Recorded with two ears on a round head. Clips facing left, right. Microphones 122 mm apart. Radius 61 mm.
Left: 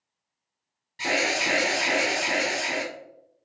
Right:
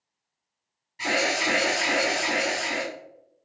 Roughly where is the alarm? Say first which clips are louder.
Right 1 dB; left.